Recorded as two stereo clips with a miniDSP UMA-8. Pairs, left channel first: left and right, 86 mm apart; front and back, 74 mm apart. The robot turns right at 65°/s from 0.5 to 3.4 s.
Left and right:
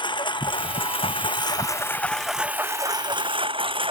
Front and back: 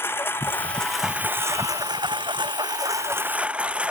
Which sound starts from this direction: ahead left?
A lawn mower, at 0.0 s.